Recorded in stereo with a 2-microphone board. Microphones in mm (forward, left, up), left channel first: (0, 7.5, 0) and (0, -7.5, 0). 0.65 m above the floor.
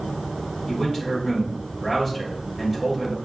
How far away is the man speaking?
About 3 m.